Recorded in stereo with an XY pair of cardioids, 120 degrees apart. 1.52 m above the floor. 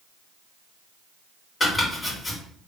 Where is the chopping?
25° left, 3 m.